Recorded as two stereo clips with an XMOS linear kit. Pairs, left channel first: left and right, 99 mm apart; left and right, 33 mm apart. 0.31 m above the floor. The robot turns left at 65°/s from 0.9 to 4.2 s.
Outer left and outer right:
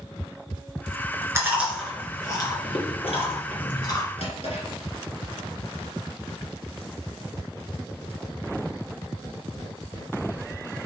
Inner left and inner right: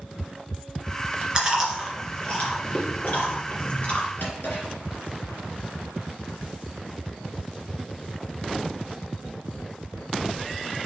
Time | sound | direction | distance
1.4 | chewing | 25° right (ahead or behind) | 2.5 m
4.2 | a drawer | 75° left (ahead or behind) | 3 m